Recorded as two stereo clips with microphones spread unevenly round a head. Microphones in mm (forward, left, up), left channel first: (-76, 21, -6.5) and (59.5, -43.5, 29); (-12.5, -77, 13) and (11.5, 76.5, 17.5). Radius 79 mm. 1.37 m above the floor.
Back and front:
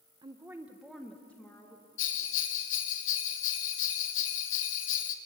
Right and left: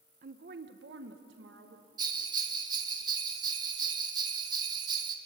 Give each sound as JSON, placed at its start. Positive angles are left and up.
{"t": 0.2, "sound": "a woman speaking", "azimuth_deg": 40, "distance_m": 1.0}
{"t": 2.0, "sound": "a bell", "azimuth_deg": 145, "distance_m": 1.5}